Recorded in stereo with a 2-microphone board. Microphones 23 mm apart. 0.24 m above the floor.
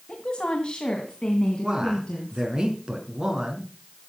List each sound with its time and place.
0.1 s a woman speaking: 45° left (ahead or behind), 1.7 m; by 2.6 s 35° left (ahead or behind), 3 m
1.6 s a man speaking: 40° right (ahead or behind), 3.5 m